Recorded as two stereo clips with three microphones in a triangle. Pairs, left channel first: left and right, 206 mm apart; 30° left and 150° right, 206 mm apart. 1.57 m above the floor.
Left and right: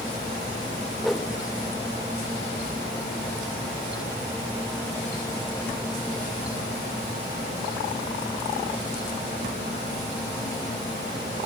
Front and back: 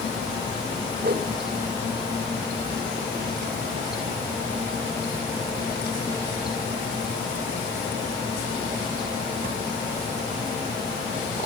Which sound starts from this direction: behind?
A whoosh, at 1.0 s.